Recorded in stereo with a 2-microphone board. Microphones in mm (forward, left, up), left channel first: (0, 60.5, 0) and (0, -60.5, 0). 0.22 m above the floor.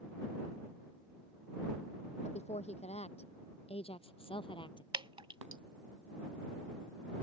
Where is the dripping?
45° right (ahead or behind).